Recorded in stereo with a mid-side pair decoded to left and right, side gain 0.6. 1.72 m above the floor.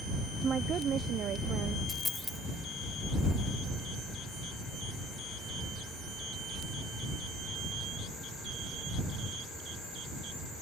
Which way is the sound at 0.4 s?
35° right.